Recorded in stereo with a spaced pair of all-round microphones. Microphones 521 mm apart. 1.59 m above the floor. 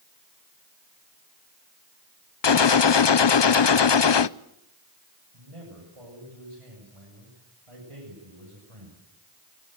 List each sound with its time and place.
2.4 s a gunshot: 55° left (ahead or behind), 0.6 m
5.3 s a man speaking: 80° right, 7.5 m